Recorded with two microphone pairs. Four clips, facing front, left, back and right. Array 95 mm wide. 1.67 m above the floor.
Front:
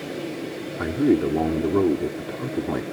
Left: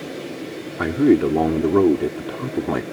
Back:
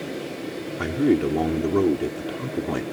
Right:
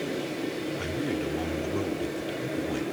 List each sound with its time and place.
0.8 s a man speaking: 90° left